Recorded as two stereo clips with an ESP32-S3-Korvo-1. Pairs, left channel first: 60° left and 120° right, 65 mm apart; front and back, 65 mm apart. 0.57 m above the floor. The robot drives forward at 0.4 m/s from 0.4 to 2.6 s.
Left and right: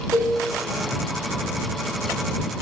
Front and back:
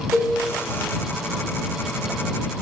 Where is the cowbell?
105° right, 4.5 m.